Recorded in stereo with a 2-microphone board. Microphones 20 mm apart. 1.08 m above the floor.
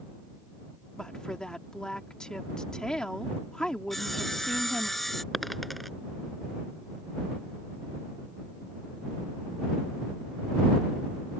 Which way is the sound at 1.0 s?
40° left (ahead or behind).